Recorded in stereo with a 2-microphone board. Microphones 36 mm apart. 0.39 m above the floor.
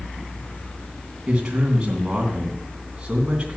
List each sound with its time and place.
1.3 s a man speaking: 25° right (ahead or behind), 2.5 m